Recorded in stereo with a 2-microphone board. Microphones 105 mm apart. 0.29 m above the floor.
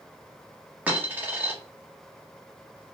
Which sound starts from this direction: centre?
A dropped coin, at 0.9 s.